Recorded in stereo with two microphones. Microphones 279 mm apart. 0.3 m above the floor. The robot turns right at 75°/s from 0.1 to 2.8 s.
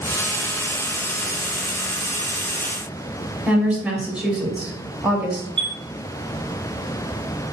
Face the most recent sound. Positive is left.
turn(degrees=-85)